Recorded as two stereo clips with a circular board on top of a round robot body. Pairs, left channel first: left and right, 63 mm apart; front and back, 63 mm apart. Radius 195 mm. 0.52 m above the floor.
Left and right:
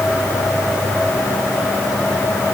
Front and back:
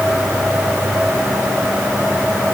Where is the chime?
No chime in this recording.